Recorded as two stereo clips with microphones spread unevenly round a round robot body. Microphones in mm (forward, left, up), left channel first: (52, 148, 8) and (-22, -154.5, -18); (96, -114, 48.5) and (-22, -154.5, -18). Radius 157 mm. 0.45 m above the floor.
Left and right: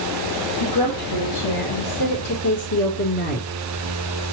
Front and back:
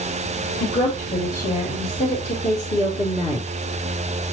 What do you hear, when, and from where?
0.6 s a woman speaking: 75° left, 2 m; by 3.5 s 105° left, 1.1 m